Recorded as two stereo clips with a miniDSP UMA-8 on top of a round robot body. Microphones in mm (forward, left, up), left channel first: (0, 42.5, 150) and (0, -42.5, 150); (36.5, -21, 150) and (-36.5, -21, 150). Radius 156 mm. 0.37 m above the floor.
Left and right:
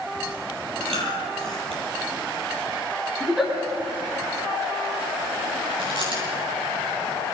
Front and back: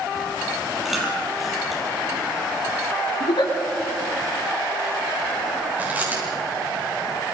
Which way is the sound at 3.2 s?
5° right.